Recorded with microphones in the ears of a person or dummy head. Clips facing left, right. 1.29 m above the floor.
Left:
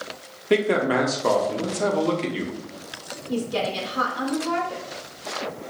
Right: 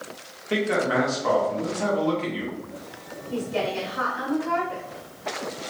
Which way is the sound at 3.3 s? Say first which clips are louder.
Left 1 dB; 60° left (ahead or behind).